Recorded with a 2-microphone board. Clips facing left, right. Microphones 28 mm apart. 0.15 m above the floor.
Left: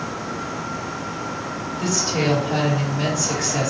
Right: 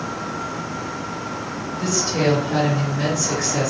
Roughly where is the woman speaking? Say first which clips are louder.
Right 1 dB; centre.